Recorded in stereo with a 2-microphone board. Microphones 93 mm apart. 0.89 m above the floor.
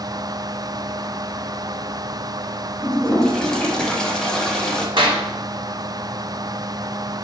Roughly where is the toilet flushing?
Centre.